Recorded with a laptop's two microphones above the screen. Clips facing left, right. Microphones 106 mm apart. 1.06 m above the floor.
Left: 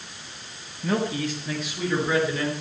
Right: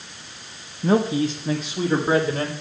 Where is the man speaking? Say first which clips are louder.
Right 6 dB; 35° right (ahead or behind), 1.3 m; by 2.5 s 45° right (ahead or behind), 3.5 m.